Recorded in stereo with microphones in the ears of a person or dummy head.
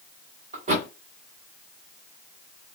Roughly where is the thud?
Right.